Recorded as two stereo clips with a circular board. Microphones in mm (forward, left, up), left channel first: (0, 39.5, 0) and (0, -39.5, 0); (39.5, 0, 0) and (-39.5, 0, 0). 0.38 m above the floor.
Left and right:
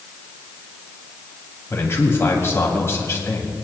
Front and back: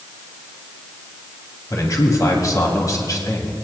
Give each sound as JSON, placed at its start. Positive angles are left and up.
{"t": 1.7, "sound": "a man speaking", "azimuth_deg": 35, "distance_m": 2.5}